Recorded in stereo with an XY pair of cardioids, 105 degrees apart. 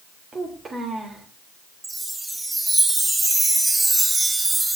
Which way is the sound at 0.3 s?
40° right.